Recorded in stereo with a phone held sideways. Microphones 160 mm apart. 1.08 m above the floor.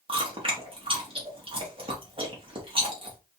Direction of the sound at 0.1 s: 35° right (ahead or behind).